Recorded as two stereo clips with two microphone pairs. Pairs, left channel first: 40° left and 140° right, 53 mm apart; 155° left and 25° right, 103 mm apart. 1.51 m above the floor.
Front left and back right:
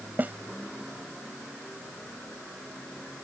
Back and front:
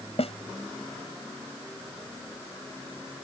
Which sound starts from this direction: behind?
A snare drum, at 0.2 s.